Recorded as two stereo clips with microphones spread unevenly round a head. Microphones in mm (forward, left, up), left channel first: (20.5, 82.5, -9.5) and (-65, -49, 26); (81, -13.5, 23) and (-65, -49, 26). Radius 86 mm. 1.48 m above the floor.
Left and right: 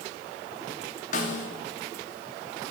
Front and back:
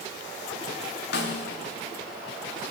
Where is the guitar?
No guitar in this recording.